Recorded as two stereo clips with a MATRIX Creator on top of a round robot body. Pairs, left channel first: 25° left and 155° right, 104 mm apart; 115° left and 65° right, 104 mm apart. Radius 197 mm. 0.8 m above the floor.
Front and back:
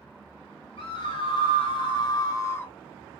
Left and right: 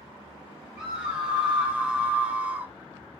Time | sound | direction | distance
0.8 | a scream | 15° left | 2 m